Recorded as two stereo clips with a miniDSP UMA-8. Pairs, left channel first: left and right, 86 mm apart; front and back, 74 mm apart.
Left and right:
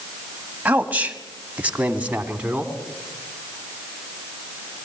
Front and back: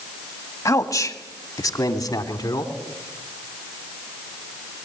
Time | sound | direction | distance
0.7 | a man speaking | 25° right | 1.8 m